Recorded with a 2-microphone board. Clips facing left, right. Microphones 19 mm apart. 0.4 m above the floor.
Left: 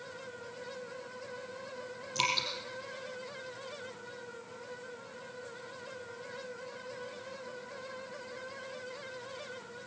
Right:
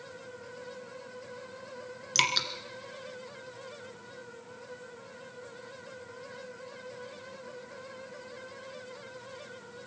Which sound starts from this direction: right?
Dripping, at 2.1 s.